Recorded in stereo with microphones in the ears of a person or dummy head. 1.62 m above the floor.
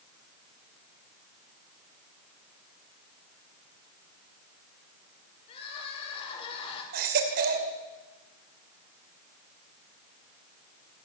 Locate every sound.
5.5 s crying: 30° left (ahead or behind), 6 m
6.9 s a baby crying: 50° right (ahead or behind), 2.5 m